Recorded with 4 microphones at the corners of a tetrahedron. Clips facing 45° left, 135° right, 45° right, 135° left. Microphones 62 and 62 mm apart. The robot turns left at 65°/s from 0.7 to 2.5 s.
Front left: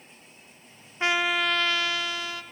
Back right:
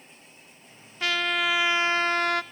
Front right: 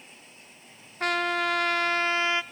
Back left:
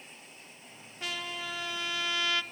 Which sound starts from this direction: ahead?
A trumpet, at 1.0 s.